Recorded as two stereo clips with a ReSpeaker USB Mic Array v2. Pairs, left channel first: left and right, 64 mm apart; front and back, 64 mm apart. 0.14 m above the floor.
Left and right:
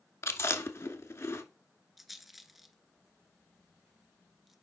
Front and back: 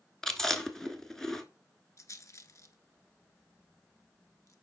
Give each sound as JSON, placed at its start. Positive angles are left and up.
{"t": 0.2, "sound": "chewing", "azimuth_deg": 80, "distance_m": 0.9}
{"t": 2.0, "sound": "a rattle", "azimuth_deg": 0, "distance_m": 0.8}